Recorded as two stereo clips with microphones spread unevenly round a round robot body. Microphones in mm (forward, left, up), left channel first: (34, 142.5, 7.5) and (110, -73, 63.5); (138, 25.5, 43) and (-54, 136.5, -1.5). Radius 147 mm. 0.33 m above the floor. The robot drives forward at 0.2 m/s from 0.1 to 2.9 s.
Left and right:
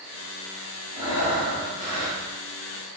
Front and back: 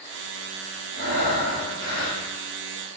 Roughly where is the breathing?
Behind left.